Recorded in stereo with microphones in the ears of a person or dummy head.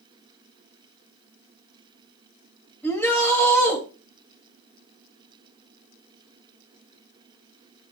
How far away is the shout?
About 3.5 m.